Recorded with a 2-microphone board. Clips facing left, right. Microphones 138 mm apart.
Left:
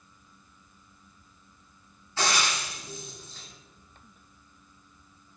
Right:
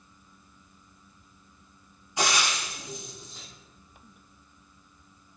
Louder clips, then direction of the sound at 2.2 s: Right 1 dB; 15° right (ahead or behind).